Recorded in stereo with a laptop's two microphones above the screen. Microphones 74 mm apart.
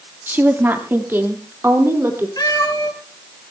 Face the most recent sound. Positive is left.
turn(degrees=55)  # may be behind; listen again after turning